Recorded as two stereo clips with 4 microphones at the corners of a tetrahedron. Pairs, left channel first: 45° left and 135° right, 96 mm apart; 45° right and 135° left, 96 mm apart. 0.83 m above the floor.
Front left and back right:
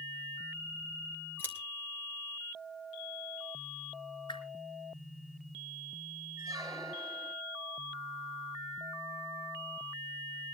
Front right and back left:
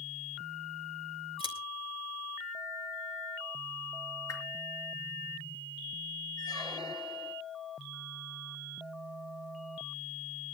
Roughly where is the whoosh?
Ahead.